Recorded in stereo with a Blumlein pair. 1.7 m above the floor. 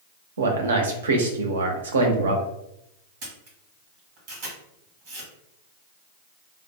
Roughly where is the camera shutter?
Ahead right.